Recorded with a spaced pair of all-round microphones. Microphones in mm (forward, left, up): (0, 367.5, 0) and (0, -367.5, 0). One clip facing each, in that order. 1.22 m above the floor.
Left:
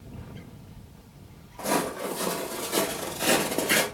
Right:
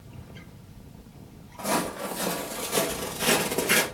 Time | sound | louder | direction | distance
1.6 | footsteps | left 2 dB | 15° right (ahead or behind) | 2.5 m